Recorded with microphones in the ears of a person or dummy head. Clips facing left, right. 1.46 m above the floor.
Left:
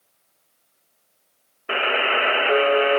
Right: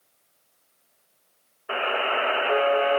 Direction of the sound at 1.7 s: 30° left (ahead or behind).